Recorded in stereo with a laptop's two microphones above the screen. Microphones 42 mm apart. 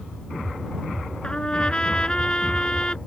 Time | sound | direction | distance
1.2 | a trumpet | 20° left (ahead or behind) | ?